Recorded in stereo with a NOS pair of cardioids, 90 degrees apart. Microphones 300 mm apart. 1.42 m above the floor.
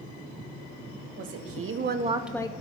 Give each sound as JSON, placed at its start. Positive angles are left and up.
{"t": 1.2, "sound": "a woman speaking", "azimuth_deg": -60, "distance_m": 1.5}